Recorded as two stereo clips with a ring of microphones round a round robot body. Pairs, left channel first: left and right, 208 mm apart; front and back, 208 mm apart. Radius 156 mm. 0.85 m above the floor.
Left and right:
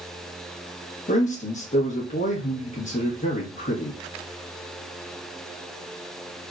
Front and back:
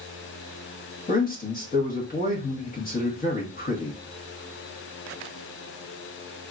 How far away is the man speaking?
About 1.3 m.